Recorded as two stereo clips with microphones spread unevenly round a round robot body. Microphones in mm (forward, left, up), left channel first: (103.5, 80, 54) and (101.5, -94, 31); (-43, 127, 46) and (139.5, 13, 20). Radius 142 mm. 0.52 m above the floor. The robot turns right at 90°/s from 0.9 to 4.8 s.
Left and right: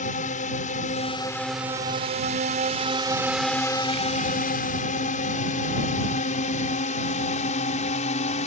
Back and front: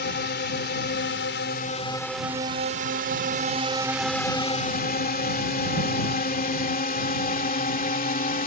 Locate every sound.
0.0 s a drone: 130° left; by 8.5 s 120° left